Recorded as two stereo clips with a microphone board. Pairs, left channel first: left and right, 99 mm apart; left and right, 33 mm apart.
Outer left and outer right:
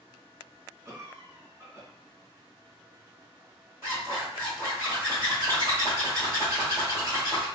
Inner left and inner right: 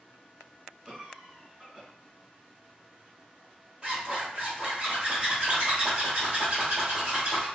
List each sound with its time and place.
0.8 s a cough: 25° right (ahead or behind), 1.4 m
3.8 s a zipper: 30° right (ahead or behind), 1.6 m